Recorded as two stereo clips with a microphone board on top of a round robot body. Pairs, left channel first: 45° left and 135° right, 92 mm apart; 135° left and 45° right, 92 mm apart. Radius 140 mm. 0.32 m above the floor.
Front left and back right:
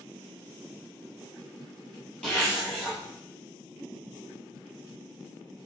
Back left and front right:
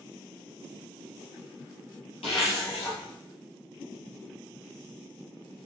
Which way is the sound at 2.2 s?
125° left.